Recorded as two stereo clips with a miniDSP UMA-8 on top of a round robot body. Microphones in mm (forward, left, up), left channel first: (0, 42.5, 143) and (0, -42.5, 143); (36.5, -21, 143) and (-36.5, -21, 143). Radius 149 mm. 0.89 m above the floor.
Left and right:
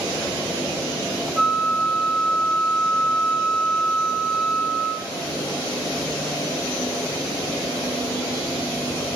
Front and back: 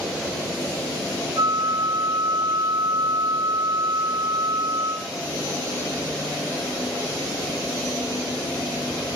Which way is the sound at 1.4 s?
Straight behind.